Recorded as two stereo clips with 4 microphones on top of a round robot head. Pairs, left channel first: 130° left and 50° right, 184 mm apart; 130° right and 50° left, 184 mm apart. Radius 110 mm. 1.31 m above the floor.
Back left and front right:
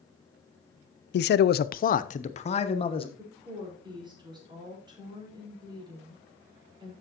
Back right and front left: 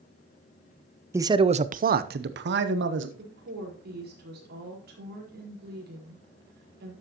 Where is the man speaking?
125° left, 0.5 m; by 3.1 s 65° left, 1.2 m.